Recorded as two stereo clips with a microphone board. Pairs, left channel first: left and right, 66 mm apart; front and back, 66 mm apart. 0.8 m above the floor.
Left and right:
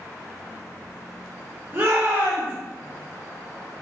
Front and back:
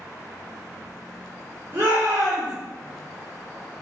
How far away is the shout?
About 1.5 m.